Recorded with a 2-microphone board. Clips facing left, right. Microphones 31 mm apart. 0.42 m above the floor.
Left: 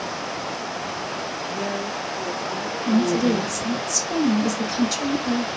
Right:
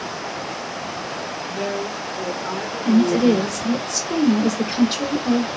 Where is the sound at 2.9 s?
45° right (ahead or behind), 1.4 m.